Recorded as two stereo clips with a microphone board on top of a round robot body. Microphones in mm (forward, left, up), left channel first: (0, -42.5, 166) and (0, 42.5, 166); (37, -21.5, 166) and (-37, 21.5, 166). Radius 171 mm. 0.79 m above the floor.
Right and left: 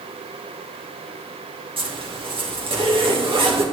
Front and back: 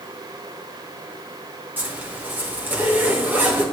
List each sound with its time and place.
1.8 s a zipper: 80° left, 2.5 m